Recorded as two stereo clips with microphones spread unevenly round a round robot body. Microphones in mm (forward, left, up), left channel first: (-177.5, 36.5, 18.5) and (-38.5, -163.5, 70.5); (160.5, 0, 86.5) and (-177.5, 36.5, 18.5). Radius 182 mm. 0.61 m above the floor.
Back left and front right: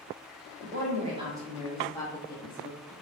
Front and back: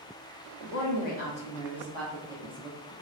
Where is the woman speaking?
20° right, 1.0 m; by 2.9 s 135° left, 1.1 m.